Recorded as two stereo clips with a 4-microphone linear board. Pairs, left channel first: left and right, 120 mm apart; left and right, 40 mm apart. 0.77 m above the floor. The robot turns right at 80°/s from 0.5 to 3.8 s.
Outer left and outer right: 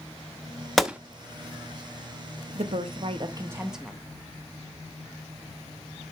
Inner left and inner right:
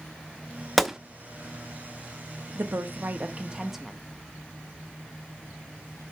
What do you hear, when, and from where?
0.8 s a gunshot: centre (ahead or behind), 0.7 m; by 1.0 s 15° right (ahead or behind), 0.7 m
2.5 s a woman speaking: 105° right, 1.0 m; by 4.0 s 5° right, 1.0 m